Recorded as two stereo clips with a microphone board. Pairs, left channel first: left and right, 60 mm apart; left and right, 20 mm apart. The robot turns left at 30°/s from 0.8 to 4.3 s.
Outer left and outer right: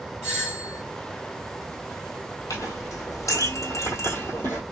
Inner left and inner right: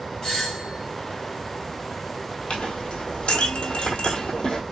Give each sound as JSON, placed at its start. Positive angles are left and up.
{"t": 0.2, "sound": "a doorbell", "side_deg": 45, "distance_m": 3.0}
{"t": 2.5, "sound": "a clink", "azimuth_deg": 95, "distance_m": 1.7}